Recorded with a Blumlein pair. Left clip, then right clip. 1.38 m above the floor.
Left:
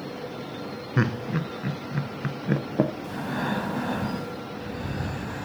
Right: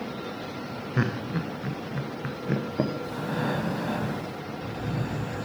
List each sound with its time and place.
1.0 s laughter: 10° left, 0.9 m
3.0 s breathing: 5° left, 1.9 m